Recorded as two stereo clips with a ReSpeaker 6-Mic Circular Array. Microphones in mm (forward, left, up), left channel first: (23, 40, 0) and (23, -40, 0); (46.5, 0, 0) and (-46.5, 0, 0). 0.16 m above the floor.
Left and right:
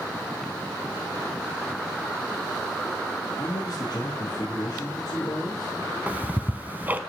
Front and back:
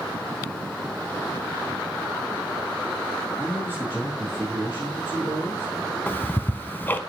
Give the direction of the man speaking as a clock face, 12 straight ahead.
8 o'clock.